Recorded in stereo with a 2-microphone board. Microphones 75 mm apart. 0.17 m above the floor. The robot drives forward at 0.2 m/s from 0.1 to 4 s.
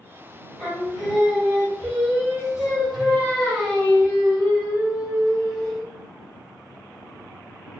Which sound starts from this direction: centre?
Singing, at 0.6 s.